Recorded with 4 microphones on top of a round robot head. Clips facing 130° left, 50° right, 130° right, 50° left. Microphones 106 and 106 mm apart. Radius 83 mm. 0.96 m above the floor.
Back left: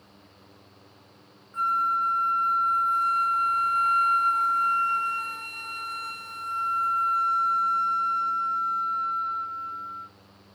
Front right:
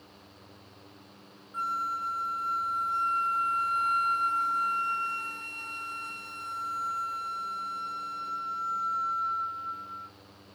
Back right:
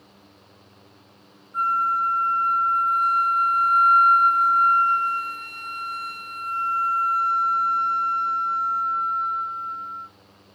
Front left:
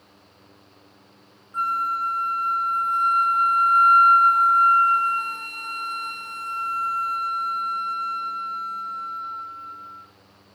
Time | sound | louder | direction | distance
1.5 | a flute | back left 7 dB, back right 2 dB | 95° left | 0.9 m